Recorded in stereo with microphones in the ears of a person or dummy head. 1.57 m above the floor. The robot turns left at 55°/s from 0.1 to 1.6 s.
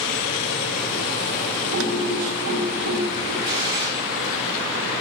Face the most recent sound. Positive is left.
turn(degrees=-25)  # may be behind; listen again after turning